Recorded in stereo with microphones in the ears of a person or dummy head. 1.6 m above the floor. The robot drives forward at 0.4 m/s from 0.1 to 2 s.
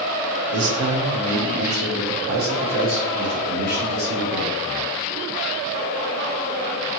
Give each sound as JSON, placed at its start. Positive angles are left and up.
{"t": 0.5, "sound": "a man speaking", "side_deg": -80, "distance_m": 0.8}